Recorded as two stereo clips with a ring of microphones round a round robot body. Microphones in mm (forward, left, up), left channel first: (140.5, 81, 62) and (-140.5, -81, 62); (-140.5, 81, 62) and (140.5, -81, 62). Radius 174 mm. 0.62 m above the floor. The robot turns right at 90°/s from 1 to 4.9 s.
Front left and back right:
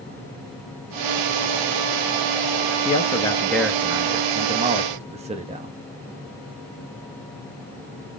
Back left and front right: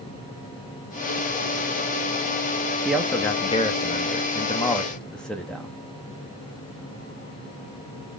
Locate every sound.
2.9 s a man speaking: 50° left, 0.6 m; by 5.7 s 125° right, 0.6 m